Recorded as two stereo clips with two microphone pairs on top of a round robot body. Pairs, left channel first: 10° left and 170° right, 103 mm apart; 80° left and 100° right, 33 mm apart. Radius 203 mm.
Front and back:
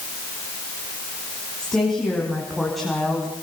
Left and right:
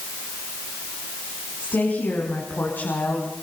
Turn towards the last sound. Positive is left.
turn(degrees=100)